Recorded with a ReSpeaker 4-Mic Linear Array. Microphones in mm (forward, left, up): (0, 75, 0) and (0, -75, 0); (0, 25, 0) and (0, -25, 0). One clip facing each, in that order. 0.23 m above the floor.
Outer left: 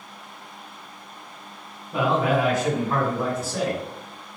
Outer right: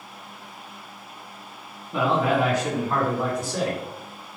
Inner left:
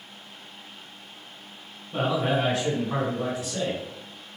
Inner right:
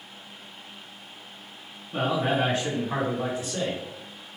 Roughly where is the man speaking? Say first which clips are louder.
Even, even; centre.